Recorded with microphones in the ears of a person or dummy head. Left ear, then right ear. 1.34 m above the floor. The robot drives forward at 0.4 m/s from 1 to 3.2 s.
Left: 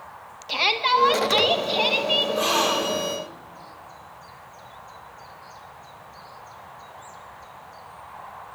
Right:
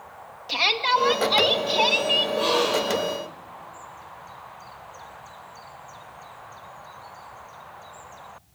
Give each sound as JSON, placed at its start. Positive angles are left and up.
{"t": 0.5, "sound": "a shout", "side_deg": -5, "distance_m": 1.5}
{"t": 2.4, "sound": "a gasp", "side_deg": 50, "distance_m": 3.0}